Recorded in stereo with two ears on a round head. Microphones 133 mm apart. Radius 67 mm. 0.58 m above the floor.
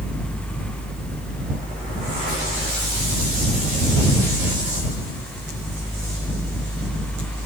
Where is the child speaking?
I don't hear a child speaking.